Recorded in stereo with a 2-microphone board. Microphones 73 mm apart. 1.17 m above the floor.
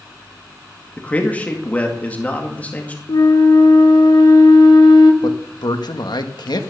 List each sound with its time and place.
1.0 s a man speaking: 20° left (ahead or behind), 2.0 m
3.1 s a flute: 75° left (ahead or behind), 1.3 m
5.2 s a man speaking: 75° left (ahead or behind), 1.4 m